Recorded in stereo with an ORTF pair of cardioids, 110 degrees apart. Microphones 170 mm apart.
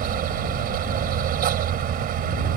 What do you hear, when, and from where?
0.0 s a fan: 60° right